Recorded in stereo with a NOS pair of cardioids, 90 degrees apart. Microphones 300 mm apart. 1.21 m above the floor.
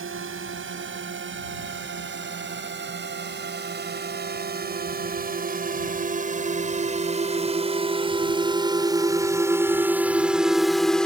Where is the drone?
45° right; by 11.1 s 5° left.